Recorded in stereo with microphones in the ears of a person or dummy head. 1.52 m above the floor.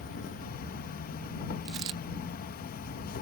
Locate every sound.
0.0 s an insect: 45° left (ahead or behind)
1.6 s a dropped coin: 20° right (ahead or behind)